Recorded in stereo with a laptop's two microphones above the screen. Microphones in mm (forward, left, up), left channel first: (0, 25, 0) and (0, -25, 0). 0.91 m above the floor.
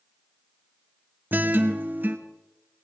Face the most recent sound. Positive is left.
turn(degrees=-40)  # may be behind; listen again after turning